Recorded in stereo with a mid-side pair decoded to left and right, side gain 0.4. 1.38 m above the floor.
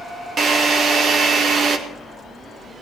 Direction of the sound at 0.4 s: 65° right.